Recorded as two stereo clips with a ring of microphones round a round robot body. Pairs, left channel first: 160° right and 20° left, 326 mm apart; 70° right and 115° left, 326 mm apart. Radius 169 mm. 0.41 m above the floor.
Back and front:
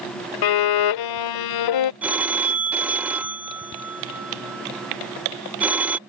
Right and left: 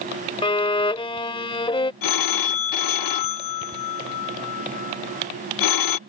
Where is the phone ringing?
65° right.